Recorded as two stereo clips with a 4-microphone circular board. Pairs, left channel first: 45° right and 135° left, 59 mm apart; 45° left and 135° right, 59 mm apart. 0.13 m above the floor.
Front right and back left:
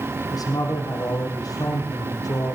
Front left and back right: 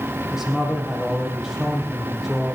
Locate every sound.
0.3 s a man speaking: 50° right, 6 m